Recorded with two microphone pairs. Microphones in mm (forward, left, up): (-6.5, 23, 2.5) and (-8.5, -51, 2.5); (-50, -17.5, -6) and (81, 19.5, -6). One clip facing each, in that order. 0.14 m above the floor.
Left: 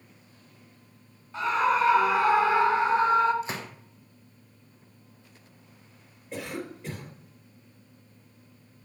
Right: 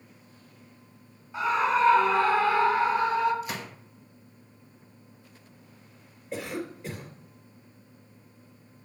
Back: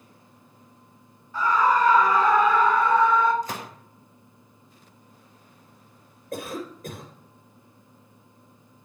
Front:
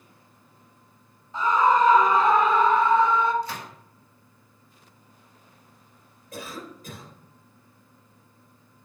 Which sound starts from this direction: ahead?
A scream, at 1.3 s.